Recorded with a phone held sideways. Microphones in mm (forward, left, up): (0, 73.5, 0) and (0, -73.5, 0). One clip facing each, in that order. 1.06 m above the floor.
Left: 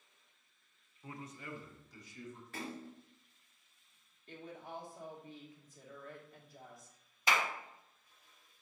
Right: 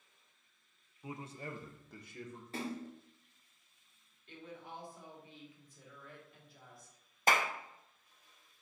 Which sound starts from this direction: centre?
A man speaking, at 1.0 s.